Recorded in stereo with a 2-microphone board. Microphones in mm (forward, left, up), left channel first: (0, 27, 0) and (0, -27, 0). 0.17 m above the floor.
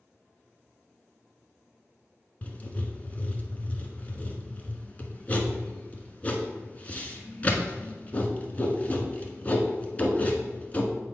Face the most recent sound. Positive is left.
turn(degrees=30)  # may be behind; listen again after turning